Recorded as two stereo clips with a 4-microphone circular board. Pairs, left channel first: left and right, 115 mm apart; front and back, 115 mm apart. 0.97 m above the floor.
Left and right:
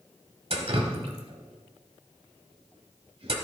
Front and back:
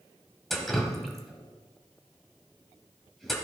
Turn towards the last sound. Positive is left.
turn(degrees=-85)